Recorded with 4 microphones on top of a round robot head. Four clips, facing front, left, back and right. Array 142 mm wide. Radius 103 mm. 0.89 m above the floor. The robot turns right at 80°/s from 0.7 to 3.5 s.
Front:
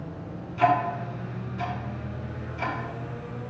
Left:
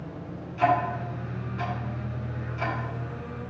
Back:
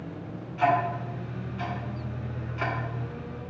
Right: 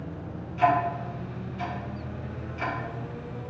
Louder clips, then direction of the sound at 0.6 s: Right 1 dB, front 2 dB; 5° left.